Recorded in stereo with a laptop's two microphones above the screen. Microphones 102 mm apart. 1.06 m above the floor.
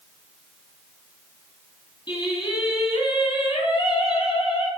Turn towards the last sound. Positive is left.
turn(degrees=45)  # may be behind; listen again after turning